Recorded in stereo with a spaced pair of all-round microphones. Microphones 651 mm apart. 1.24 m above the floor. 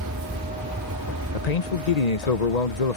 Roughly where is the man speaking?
Left.